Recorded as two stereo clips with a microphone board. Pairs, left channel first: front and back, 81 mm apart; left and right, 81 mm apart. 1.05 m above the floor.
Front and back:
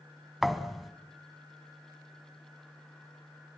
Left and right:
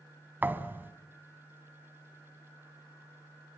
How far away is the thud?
About 1.0 m.